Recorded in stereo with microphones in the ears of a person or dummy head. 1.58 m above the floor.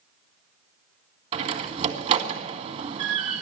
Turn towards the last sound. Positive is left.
turn(degrees=-35)  # may be behind; listen again after turning